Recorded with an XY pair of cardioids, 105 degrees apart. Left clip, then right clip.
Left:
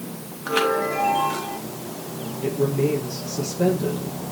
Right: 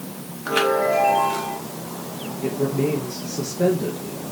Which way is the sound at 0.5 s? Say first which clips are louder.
Right 2 dB; straight ahead.